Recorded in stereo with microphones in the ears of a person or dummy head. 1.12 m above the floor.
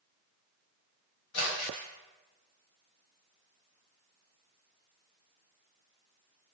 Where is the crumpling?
85° left, 1.5 m.